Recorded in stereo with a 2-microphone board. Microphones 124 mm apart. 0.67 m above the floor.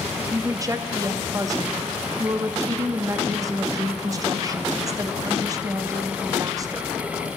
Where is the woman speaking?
30° right (ahead or behind), 0.6 m.